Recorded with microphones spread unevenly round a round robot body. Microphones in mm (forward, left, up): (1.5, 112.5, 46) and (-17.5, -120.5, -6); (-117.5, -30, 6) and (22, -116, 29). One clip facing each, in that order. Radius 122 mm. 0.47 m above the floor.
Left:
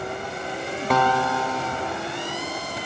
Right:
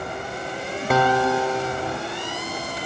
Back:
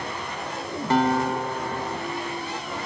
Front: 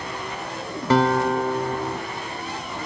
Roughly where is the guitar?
Ahead.